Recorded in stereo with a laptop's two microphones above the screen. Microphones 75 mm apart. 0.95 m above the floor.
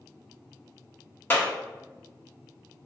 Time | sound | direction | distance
1.3 | a clap | 30° left (ahead or behind) | 1.2 m